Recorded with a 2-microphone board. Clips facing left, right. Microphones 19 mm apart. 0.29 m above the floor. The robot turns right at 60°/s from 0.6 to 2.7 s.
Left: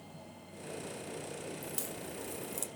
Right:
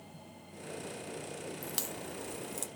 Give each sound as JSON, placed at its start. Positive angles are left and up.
{"t": 1.6, "sound": "a crack", "side_deg": -55, "distance_m": 0.9}